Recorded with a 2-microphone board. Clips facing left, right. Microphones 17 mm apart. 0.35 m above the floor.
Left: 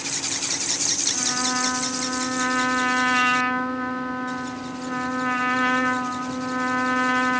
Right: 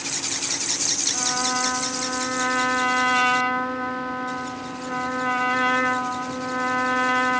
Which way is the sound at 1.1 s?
Centre (ahead or behind).